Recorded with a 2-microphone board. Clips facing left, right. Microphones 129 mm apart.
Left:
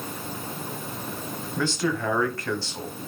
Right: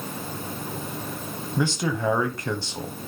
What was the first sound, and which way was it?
A man speaking, 15° right (ahead or behind).